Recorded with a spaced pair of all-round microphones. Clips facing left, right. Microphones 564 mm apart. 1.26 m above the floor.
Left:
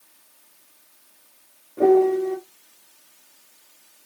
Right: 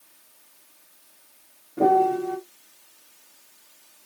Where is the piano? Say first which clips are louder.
Left 5 dB; 35° right (ahead or behind), 1.4 m.